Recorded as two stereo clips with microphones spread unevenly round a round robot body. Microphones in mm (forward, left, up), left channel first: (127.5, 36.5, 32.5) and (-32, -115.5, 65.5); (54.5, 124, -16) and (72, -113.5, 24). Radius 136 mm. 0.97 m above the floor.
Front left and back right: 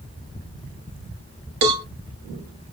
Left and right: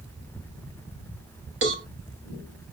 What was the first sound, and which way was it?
A cowbell, 140° right.